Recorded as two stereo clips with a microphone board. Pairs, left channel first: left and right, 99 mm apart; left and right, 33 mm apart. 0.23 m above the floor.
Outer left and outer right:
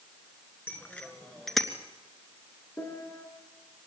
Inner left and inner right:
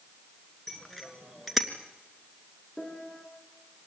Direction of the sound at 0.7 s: 20° left (ahead or behind).